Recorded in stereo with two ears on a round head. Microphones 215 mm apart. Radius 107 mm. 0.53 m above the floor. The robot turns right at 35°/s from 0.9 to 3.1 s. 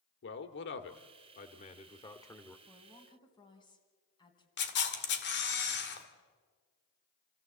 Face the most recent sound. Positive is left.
turn(degrees=50)  # may be behind; listen again after turning